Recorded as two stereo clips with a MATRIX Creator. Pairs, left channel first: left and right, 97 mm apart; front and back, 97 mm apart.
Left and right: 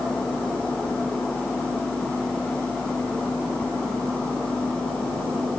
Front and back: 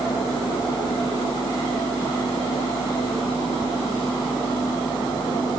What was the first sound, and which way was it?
Only background noise.